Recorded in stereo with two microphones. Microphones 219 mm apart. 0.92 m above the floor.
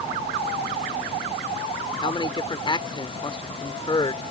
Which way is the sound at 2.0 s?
25° left (ahead or behind).